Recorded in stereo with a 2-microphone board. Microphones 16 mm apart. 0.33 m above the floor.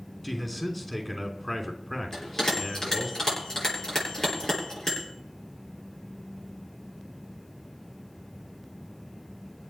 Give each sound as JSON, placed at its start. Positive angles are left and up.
{"t": 0.2, "sound": "a man speaking", "side_deg": 15, "distance_m": 3.0}
{"t": 2.1, "sound": "a bell", "side_deg": 30, "distance_m": 8.0}